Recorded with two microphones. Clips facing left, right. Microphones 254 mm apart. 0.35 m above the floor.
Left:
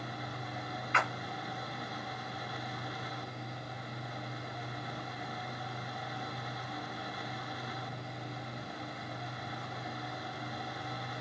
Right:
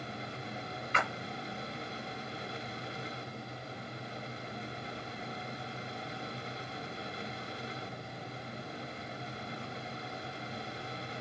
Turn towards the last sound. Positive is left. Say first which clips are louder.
# even
turn(degrees=-35)  # may be behind; listen again after turning